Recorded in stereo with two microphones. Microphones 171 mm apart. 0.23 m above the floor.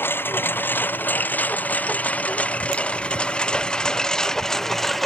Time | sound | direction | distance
0.0 | a lawn mower | 15° left (ahead or behind) | ?